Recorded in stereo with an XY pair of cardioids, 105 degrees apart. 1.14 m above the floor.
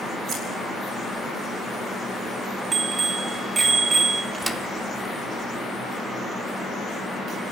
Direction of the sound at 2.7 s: 40° right.